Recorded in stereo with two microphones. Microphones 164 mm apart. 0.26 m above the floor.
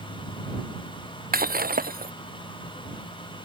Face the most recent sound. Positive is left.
turn(degrees=-65)  # may be behind; listen again after turning